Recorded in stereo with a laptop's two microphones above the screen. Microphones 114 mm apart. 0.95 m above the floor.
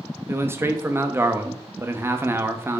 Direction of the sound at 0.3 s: 20° right (ahead or behind).